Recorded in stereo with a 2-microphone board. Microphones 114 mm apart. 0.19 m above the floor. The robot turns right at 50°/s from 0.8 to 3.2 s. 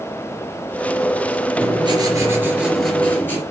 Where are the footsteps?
I don't hear footsteps.